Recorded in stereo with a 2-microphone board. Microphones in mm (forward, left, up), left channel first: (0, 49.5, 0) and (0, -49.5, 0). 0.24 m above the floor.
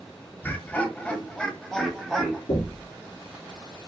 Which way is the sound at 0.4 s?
20° left (ahead or behind).